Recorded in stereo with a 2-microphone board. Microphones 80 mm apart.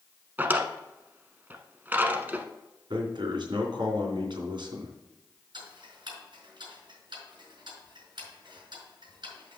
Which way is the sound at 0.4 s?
25° right (ahead or behind).